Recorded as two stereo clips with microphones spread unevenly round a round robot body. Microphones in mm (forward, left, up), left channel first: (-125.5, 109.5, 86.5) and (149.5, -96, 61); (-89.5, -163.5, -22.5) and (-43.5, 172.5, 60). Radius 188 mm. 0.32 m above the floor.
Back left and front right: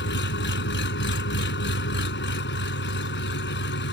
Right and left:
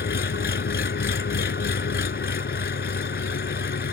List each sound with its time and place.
0.0 s an engine running: 155° right